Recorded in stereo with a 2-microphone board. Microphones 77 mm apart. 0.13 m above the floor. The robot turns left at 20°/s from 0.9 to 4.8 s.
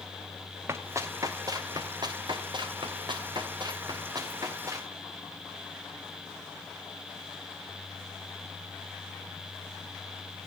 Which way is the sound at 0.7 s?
35° right (ahead or behind).